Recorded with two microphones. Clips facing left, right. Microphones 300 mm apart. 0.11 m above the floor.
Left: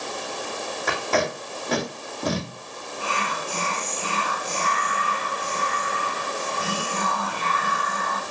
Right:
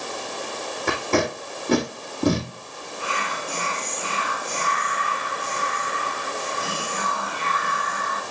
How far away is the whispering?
About 5.5 m.